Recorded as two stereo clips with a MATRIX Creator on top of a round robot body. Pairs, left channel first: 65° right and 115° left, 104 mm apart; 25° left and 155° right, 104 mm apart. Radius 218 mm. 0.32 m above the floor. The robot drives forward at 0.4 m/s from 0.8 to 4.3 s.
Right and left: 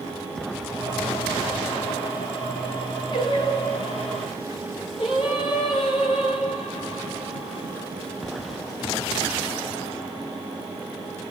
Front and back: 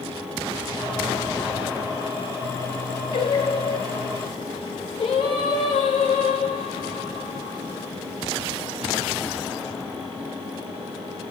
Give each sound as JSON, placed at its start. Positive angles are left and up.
{"t": 3.1, "sound": "singing", "azimuth_deg": -20, "distance_m": 7.0}